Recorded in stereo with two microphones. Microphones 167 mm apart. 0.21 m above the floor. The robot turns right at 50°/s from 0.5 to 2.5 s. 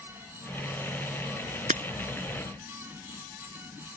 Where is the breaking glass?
50° right (ahead or behind); by 1.8 s 55° right (ahead or behind).